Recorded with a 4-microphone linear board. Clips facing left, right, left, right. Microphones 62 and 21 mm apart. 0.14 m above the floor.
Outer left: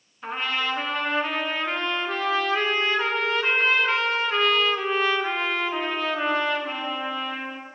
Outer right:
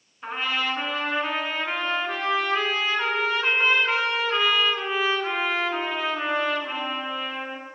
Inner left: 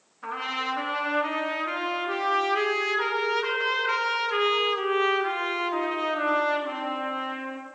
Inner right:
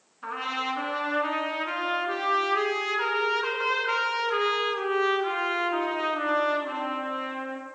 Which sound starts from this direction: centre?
A trumpet, at 0.2 s.